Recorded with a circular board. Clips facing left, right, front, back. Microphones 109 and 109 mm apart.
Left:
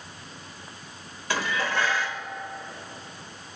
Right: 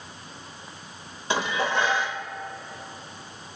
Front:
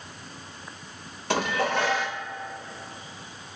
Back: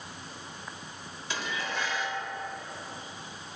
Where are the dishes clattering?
25° right, 1.1 m.